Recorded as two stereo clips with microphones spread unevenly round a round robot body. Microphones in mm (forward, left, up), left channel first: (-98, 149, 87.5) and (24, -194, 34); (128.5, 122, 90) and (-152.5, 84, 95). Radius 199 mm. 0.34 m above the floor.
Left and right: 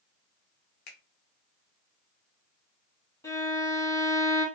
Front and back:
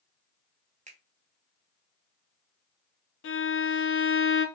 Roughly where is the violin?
Ahead.